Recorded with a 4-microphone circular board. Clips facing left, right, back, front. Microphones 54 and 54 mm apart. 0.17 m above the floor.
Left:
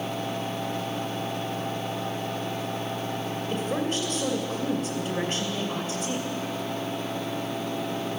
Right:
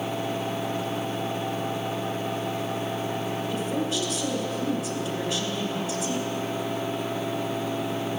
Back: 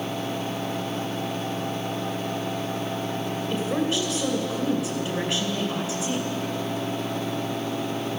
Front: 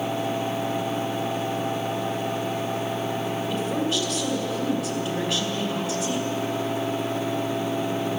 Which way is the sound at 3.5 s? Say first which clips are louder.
Left 2 dB, back 2 dB; 110° left.